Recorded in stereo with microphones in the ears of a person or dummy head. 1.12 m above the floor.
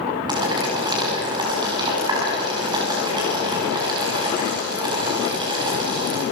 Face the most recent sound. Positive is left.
turn(degrees=-25)  # may be behind; listen again after turning